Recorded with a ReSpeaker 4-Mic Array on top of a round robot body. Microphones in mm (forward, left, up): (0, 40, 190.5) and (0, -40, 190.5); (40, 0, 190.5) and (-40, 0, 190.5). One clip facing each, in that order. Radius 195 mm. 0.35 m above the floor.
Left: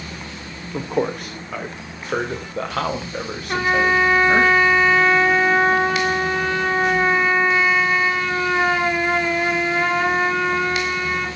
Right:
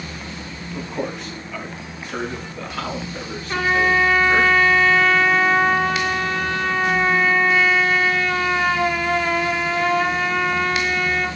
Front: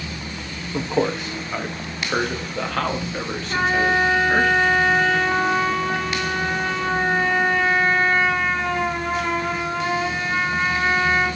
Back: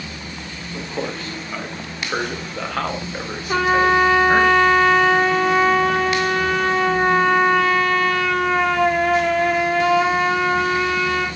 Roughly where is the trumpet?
Behind.